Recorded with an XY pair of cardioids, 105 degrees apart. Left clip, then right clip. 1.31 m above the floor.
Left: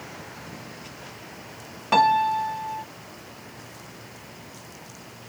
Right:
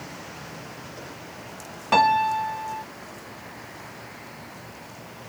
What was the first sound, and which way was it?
A piano, 5° right.